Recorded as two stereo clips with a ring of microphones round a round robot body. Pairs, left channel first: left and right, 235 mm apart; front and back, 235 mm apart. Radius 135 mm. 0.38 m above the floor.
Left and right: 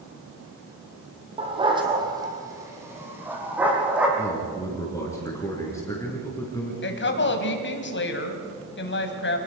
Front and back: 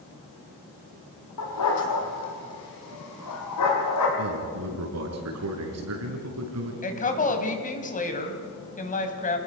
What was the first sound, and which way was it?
A dog barking, 25° right.